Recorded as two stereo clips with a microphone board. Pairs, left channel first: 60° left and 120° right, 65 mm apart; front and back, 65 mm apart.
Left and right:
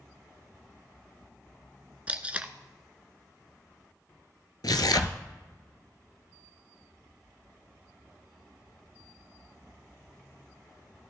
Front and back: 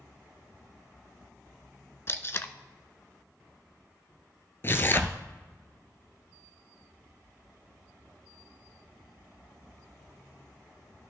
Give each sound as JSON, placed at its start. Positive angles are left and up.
{"t": 2.1, "sound": "tape being pulled", "azimuth_deg": -50, "distance_m": 0.5}
{"t": 4.6, "sound": "tearing paper", "azimuth_deg": 55, "distance_m": 0.6}